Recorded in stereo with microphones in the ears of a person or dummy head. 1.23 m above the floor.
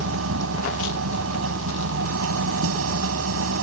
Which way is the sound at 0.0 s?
85° right.